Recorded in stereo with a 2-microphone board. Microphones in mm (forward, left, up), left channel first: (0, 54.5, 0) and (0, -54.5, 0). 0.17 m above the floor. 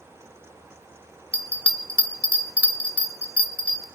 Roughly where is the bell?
Centre.